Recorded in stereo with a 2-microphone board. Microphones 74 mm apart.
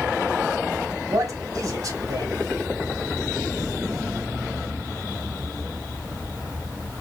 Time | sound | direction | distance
1.1 | a man speaking | 45° right (ahead or behind) | 2.5 m